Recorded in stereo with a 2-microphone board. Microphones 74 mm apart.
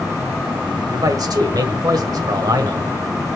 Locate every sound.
0.9 s a man speaking: 60° right (ahead or behind), 1.5 m